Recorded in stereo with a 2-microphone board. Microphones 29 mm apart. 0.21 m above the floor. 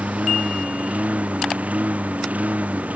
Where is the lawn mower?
50° right (ahead or behind); by 3.0 s 55° right (ahead or behind).